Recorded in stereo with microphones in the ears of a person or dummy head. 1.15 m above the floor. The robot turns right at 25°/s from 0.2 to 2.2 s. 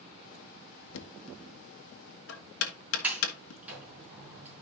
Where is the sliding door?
10° right (ahead or behind), 4.5 m.